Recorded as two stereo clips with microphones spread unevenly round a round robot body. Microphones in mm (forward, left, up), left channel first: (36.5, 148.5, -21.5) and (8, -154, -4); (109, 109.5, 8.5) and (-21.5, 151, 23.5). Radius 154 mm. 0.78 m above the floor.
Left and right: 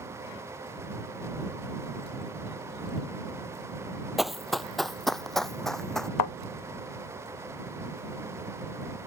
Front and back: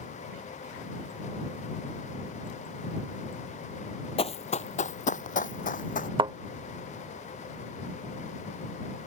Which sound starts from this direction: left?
A thud, at 6.2 s.